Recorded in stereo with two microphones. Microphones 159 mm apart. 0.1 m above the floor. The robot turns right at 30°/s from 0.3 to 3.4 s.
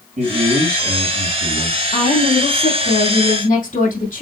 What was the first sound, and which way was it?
A man speaking, 100° right.